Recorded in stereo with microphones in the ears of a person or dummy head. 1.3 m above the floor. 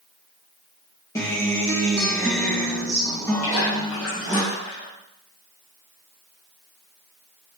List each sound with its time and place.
1.1 s a guitar: 15° left (ahead or behind), 1.7 m
3.4 s a splash: 85° left, 4 m